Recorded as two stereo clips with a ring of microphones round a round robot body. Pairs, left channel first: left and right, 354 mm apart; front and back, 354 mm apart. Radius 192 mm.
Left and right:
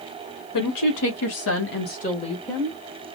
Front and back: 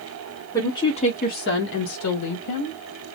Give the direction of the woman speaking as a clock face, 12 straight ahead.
9 o'clock.